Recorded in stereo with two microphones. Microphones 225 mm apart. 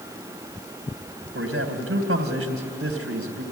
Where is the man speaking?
80° right, 2.5 m.